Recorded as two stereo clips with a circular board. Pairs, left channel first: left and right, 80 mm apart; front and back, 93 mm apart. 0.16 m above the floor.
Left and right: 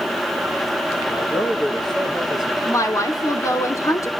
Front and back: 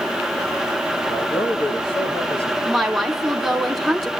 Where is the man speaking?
15° left, 5.5 m; by 2.5 s straight ahead, 4.5 m.